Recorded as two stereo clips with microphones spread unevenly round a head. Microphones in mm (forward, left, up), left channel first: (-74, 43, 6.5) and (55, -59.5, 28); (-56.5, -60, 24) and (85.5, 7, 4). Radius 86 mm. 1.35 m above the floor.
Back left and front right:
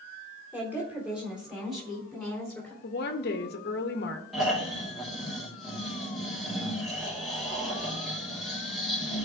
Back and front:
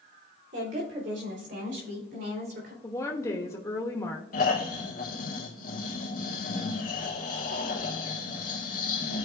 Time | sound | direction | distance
0.5 | a woman speaking | 40° left | 3.5 m
2.8 | a woman speaking | 130° left | 0.9 m
4.3 | snoring | 125° right | 1.6 m